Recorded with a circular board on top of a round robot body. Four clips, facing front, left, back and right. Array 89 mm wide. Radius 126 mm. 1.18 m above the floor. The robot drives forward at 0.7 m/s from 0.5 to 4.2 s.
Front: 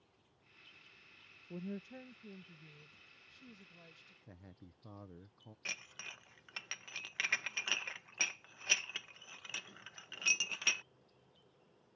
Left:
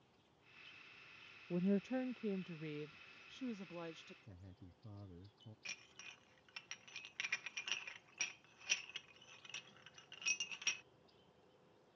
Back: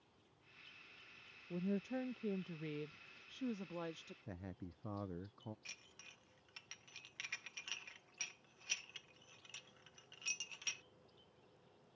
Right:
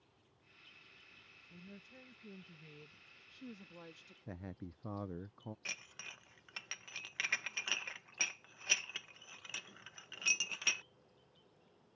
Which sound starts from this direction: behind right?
A man speaking, at 4.3 s.